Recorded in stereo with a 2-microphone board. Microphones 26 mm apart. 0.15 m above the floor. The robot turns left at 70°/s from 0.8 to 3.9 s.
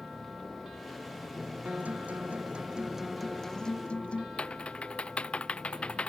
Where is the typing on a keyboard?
55° left (ahead or behind).